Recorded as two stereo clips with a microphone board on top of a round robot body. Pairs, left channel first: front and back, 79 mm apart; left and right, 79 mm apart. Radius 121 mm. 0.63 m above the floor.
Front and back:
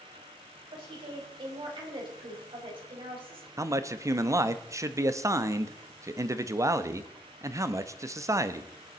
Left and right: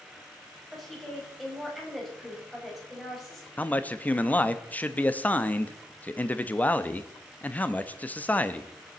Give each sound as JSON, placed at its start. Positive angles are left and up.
{"t": 0.7, "sound": "a woman speaking", "azimuth_deg": 180, "distance_m": 5.5}
{"t": 3.6, "sound": "a man speaking", "azimuth_deg": 150, "distance_m": 1.0}